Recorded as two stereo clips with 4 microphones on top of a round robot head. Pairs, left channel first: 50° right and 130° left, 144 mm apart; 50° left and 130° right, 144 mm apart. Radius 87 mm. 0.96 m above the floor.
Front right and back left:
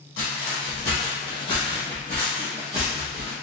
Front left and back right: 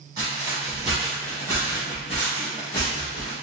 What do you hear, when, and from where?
0.2 s footsteps: 70° right, 1.3 m; by 3.3 s 50° left, 1.6 m